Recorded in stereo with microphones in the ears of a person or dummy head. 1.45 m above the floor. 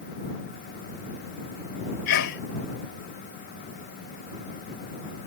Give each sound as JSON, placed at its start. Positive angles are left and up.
{"t": 2.1, "sound": "a sneeze", "side_deg": 75}